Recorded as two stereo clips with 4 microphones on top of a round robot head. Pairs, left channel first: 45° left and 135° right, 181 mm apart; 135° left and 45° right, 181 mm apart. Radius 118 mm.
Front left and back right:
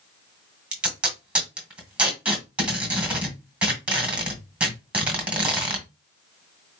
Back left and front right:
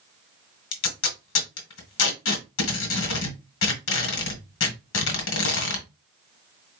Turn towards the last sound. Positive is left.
turn(degrees=140)